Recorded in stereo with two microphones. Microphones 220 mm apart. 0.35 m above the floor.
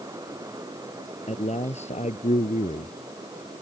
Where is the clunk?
No clunk in this recording.